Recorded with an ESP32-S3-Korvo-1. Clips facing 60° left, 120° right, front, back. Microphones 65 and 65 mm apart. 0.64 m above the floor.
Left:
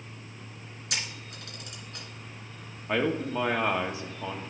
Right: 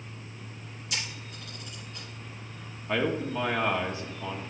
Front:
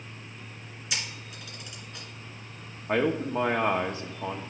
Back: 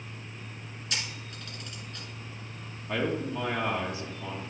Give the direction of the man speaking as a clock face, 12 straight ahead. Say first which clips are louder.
Left 1 dB, front 4 dB; 12 o'clock.